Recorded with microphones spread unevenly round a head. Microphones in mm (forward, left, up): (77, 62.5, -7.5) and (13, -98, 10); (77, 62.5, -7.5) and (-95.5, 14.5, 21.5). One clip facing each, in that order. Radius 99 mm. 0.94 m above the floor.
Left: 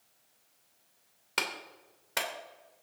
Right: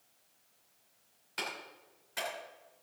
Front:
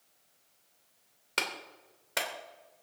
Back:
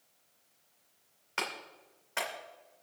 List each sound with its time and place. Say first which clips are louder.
1.4 s a clap: left 4 dB, front 1 dB; 60° left, 2.5 m